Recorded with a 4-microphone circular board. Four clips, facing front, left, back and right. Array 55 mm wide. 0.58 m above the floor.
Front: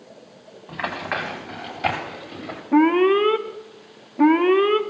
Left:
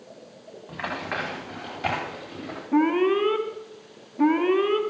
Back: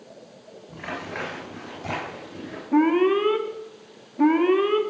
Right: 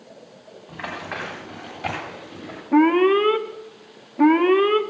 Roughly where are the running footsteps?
Ahead.